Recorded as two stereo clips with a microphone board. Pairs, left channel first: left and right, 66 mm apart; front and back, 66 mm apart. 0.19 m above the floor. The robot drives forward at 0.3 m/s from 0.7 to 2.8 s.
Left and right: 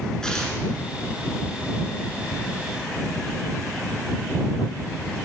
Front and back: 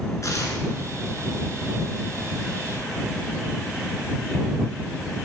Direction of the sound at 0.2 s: 10° left.